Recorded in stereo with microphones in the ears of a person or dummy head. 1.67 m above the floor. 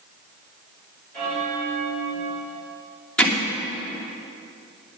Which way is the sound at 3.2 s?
10° left (ahead or behind).